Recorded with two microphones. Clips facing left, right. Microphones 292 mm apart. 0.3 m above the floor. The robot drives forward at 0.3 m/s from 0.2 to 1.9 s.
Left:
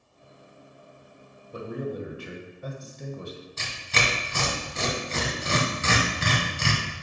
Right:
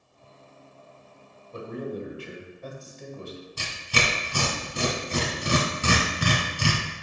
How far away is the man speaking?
About 1.5 m.